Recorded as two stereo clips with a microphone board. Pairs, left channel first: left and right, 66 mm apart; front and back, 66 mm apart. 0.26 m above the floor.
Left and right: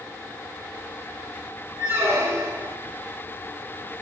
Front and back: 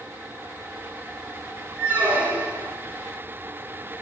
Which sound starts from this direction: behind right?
A squeak, at 1.8 s.